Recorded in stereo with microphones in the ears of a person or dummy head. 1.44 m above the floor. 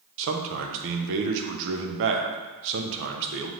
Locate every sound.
0.2 s a man speaking: 60° right (ahead or behind), 0.6 m